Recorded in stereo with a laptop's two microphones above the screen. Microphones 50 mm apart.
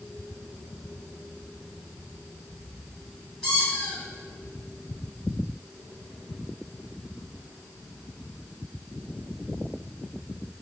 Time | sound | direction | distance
3.4 | a squeak | 15° left (ahead or behind) | 1.2 m